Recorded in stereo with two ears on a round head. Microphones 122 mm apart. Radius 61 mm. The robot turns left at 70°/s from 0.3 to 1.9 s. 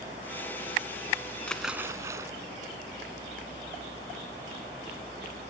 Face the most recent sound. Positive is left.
turn(degrees=-20)